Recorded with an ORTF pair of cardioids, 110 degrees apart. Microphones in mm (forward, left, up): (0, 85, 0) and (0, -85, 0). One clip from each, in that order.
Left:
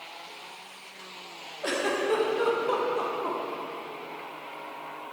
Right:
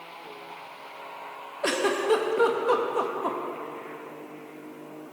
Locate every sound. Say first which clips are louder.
1.6 s a giggle: right 3 dB; 35° right, 1.2 m